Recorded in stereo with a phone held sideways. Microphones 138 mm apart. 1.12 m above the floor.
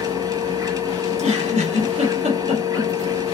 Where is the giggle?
60° right (ahead or behind), 2 m.